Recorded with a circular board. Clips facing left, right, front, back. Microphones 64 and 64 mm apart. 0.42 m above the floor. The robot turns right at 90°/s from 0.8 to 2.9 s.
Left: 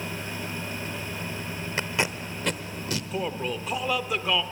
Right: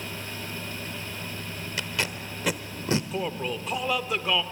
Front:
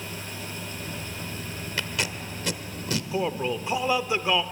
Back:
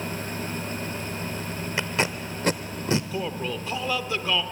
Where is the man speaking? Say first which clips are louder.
Even, front 3 dB; straight ahead, 0.8 m.